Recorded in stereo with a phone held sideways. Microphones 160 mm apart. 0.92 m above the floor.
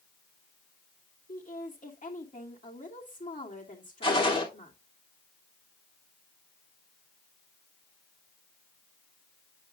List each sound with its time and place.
1.3 s a woman speaking: 55° left (ahead or behind), 2.5 m
4.0 s a gunshot: 35° left (ahead or behind), 2.5 m